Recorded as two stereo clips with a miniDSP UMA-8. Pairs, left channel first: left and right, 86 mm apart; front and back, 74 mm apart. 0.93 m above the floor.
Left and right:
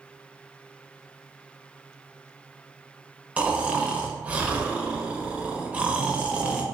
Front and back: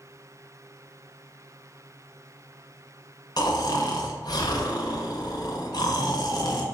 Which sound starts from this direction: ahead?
Snoring, at 3.4 s.